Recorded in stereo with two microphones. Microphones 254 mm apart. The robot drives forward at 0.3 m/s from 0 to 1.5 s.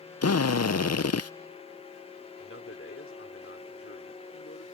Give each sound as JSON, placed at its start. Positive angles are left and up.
{"t": 0.2, "sound": "a drill", "side_deg": 70}
{"t": 2.4, "sound": "a man speaking", "side_deg": 55}